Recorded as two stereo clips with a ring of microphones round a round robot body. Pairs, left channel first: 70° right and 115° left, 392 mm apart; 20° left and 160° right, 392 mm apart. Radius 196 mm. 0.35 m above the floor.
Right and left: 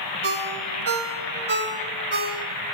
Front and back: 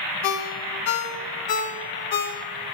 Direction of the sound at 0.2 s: 45° left.